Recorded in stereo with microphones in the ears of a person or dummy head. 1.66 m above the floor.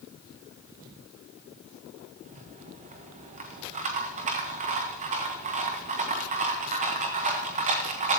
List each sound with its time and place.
2.2 s a rattle: 30° right (ahead or behind), 1.0 m